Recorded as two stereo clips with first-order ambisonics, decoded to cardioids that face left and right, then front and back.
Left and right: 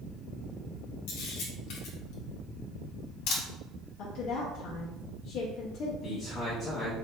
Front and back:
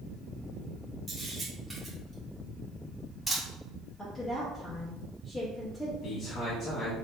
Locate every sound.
1.1 s a camera shutter: 95° left, 1.7 m
4.0 s a woman speaking: 75° left, 0.9 m
6.0 s a man speaking: 30° left, 1.1 m